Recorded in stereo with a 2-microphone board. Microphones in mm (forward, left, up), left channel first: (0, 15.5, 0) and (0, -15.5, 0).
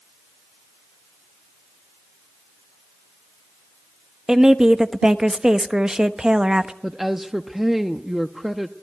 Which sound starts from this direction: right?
A woman speaking, at 4.3 s.